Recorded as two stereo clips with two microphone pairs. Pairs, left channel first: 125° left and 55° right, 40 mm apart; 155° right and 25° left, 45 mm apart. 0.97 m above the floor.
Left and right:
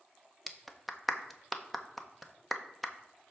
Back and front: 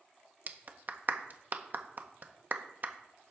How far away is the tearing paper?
No tearing paper in this recording.